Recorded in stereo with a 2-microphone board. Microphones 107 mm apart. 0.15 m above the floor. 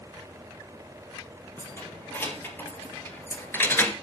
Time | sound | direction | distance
1.6 | keys jangling | 20° left (ahead or behind) | 2.5 m